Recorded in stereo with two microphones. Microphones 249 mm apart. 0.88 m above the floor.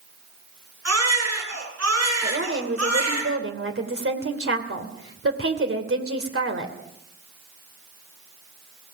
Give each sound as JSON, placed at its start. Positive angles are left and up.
{"t": 0.8, "sound": "a baby crying", "side_deg": -85, "distance_m": 9.0}
{"t": 2.2, "sound": "a woman speaking", "side_deg": -60, "distance_m": 2.5}